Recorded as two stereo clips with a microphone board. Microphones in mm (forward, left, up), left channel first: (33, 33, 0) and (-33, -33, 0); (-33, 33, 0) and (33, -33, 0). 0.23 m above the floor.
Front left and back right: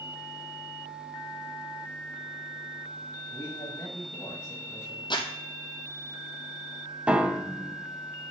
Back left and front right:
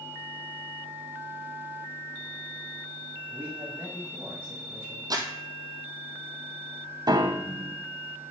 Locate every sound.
3.3 s a man speaking: 10° left, 1.7 m
5.1 s crumpling: 5° left, 1.2 m
7.1 s a piano: 60° right, 0.7 m